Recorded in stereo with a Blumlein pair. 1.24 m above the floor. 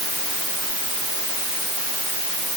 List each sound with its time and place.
Only background noise.